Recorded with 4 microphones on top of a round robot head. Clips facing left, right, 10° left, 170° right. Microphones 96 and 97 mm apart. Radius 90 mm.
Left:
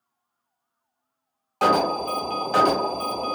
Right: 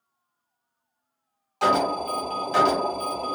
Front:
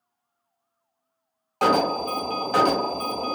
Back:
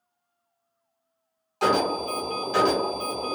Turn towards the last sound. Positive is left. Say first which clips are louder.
# left 2 dB, front 2 dB
turn(degrees=50)